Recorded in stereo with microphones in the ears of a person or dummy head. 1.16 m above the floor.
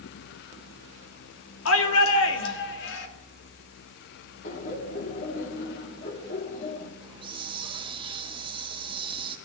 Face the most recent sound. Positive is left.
turn(degrees=-20)  # may be behind; listen again after turning